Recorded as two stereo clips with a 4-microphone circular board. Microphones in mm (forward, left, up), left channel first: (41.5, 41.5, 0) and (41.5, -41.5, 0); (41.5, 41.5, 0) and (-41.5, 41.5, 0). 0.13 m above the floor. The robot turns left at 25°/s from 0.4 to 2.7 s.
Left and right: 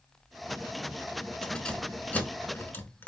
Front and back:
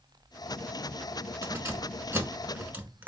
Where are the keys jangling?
160° left, 0.8 m; by 3.1 s 130° left, 0.8 m.